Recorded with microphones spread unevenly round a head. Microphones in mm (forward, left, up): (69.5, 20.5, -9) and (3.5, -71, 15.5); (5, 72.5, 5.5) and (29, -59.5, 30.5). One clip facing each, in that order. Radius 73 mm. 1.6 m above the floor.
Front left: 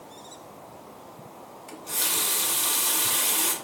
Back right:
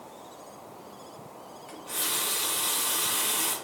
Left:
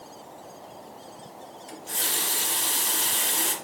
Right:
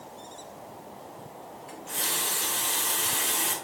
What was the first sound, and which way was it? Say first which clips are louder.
A running tap: front left 2 dB, even; 80° left.